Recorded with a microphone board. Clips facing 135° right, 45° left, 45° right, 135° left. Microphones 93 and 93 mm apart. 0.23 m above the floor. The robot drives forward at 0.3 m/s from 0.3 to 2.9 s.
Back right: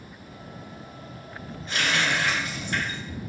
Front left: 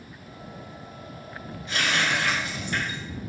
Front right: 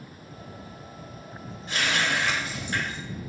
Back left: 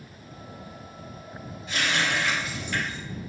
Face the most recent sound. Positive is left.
turn(degrees=-95)